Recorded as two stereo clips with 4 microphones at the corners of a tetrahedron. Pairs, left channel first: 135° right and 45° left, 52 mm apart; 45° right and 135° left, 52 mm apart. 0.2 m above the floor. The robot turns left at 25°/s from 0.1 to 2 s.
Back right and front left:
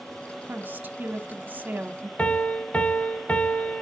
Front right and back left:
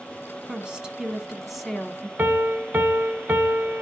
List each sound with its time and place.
0.5 s a woman speaking: 70° left, 1.1 m; by 2.1 s 35° left, 1.1 m
2.2 s a piano: 170° left, 0.7 m